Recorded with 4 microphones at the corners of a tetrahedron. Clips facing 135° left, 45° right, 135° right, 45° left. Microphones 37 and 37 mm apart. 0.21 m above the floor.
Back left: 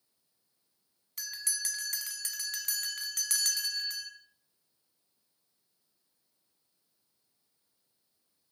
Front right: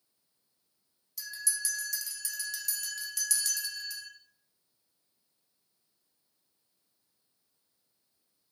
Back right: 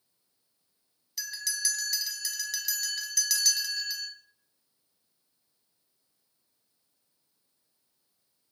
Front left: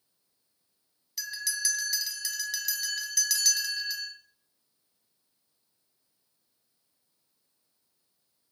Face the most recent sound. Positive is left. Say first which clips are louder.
# front right 1 dB, front left 1 dB
turn(degrees=135)